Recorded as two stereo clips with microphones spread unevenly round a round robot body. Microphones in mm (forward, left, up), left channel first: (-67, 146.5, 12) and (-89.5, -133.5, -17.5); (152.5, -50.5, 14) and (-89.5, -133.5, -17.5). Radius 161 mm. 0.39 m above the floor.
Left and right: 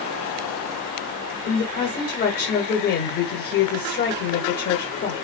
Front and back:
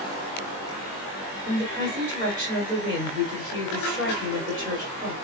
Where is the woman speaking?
125° left, 1.3 m.